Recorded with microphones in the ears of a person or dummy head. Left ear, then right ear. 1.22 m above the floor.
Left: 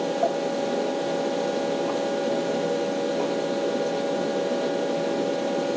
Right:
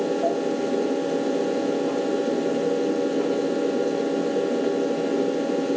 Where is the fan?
60° left (ahead or behind), 2 m.